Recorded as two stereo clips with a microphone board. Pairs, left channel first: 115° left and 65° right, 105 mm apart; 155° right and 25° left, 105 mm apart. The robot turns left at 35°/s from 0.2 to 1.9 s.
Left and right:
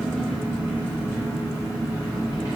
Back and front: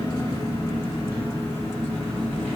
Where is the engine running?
170° right, 1.4 m; by 2.6 s 130° left, 1.4 m.